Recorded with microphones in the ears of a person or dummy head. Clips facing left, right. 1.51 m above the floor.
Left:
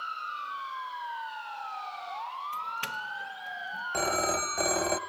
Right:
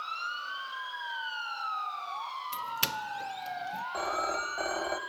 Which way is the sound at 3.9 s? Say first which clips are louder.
Left 5 dB; 35° left (ahead or behind).